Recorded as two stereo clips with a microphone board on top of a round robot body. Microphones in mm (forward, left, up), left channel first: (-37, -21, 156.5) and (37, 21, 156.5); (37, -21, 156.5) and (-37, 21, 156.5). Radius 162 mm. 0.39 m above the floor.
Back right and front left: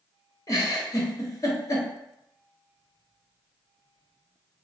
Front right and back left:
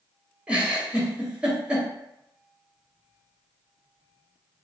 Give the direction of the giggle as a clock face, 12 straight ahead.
5 o'clock.